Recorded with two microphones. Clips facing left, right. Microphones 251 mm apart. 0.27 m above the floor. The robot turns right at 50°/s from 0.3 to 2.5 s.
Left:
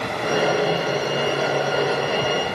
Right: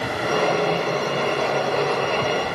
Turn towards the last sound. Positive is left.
No sound to turn to.